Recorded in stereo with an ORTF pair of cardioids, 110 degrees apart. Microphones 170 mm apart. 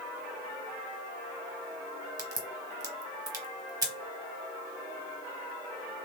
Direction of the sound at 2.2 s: 20° right.